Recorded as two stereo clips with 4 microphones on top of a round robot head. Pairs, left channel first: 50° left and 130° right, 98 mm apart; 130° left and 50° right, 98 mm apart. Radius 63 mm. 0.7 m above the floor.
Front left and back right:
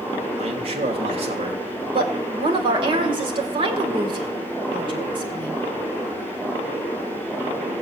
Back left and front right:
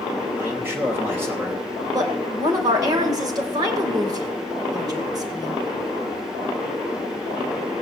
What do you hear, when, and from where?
0.4 s a man speaking: 120° right, 3 m
1.9 s a woman speaking: 100° right, 3 m